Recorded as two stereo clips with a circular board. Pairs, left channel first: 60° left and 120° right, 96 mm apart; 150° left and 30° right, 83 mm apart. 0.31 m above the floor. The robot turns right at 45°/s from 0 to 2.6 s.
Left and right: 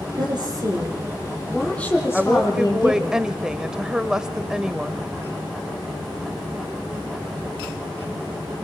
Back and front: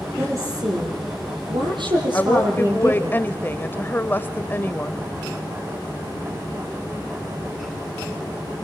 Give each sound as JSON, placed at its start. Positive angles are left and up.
{"t": 0.2, "sound": "a woman speaking", "azimuth_deg": -90, "distance_m": 9.0}
{"t": 2.1, "sound": "a woman speaking", "azimuth_deg": 145, "distance_m": 1.2}